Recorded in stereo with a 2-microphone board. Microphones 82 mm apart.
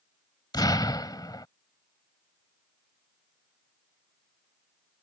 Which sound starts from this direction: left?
An explosion, at 0.5 s.